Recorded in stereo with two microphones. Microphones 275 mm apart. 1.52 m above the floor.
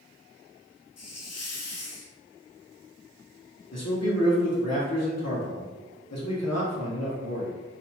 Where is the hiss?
65° left (ahead or behind), 0.5 m.